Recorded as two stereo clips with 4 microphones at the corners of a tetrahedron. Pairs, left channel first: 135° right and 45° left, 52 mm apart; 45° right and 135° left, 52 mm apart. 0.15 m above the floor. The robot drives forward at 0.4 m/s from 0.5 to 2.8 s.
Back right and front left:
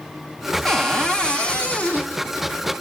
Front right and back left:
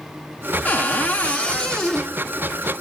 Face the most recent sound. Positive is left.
turn(degrees=-135)